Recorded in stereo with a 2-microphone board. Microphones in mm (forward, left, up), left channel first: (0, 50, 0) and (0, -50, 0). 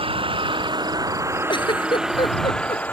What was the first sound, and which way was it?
A vehicle, 65° right (ahead or behind).